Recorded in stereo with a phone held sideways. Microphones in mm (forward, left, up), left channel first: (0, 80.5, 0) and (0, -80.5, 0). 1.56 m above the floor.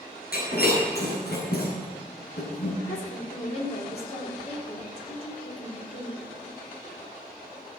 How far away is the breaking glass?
About 7 m.